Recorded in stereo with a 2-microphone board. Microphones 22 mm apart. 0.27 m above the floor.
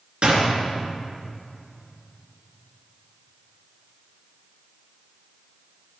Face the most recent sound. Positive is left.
turn(degrees=-50)  # may be behind; listen again after turning